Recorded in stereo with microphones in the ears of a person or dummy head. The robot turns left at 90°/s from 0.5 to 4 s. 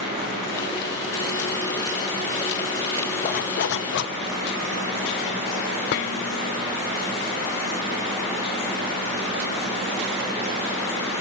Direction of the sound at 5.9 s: 55° left (ahead or behind).